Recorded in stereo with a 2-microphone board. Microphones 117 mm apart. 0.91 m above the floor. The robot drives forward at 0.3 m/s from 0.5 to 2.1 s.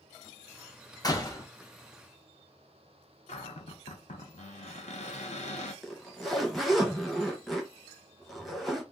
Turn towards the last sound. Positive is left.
turn(degrees=0)  # may be behind; listen again after turning